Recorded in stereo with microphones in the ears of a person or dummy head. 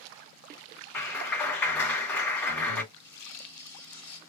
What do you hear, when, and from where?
0.9 s a clap: 5° left (ahead or behind), 2 m
2.9 s tearing paper: 10° left (ahead or behind), 2 m